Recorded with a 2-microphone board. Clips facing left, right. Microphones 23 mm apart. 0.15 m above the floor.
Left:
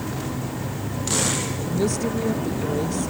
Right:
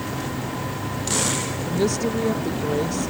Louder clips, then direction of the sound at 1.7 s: Right 2 dB; 20° right (ahead or behind).